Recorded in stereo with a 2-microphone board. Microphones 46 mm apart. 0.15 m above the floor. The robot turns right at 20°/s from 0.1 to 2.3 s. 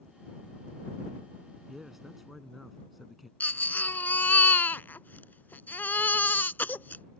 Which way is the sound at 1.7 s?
10° right (ahead or behind).